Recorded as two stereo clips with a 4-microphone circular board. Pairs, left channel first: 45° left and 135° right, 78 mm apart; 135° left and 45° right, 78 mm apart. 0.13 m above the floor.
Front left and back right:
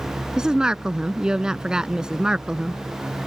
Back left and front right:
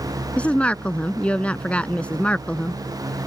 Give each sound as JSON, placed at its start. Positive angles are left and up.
{"t": 0.4, "sound": "a woman speaking", "azimuth_deg": 165}